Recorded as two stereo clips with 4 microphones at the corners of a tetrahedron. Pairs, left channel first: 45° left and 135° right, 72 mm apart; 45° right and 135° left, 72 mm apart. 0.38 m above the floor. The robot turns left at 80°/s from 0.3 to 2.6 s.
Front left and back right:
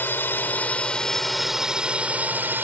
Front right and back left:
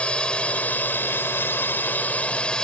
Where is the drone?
15° left; by 2.6 s 115° right.